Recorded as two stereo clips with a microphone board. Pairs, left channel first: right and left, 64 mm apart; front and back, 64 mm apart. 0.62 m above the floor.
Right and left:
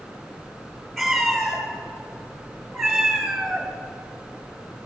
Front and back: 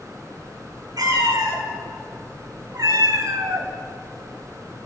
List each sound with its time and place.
1.0 s a cat meowing: 175° right, 3 m; by 3.7 s 170° left, 1.2 m